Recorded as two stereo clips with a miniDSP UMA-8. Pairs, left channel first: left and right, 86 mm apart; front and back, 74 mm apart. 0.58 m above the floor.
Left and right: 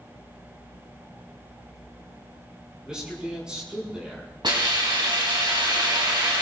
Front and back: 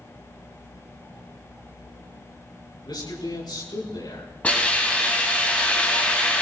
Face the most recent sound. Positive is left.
turn(degrees=-70)